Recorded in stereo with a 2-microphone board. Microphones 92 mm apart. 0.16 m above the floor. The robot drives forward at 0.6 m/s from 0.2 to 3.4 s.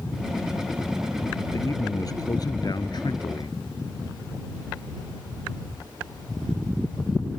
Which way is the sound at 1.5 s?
40° left (ahead or behind).